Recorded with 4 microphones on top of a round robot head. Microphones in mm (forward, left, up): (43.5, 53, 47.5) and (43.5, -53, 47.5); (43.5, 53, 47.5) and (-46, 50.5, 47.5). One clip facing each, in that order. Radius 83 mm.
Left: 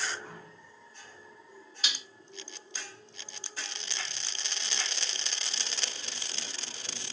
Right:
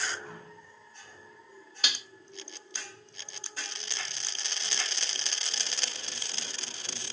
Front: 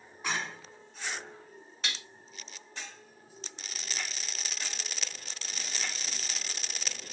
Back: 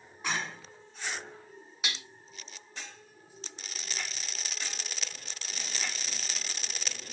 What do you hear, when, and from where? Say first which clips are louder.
1.8 s dishes clattering: right 2 dB, back 1 dB; 100° right, 0.7 m